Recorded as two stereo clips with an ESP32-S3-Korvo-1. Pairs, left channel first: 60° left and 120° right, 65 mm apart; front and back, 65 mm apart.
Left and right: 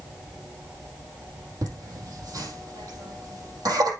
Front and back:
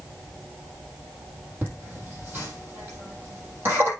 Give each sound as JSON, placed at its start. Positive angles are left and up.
{"t": 1.6, "sound": "laughter", "azimuth_deg": -125, "distance_m": 3.5}